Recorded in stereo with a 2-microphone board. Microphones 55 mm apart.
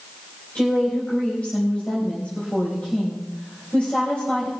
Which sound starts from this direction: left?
A woman speaking, at 0.6 s.